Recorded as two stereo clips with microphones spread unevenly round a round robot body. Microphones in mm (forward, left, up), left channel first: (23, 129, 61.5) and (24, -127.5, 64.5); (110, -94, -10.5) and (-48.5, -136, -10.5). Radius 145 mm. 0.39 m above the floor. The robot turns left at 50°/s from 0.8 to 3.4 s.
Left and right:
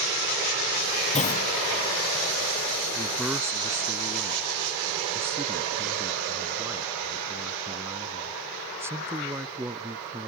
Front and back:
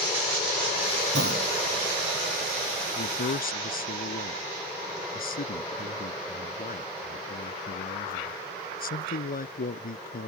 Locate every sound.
1.1 s a clunk: 155° left; by 1.5 s 140° left
3.0 s a man speaking: 15° left; by 10.3 s 10° right